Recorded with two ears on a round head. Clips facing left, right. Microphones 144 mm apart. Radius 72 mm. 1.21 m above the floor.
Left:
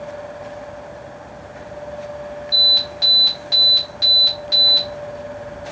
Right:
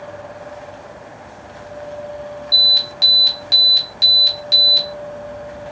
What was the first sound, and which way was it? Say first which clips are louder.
An alarm: left 1 dB; 35° right (ahead or behind).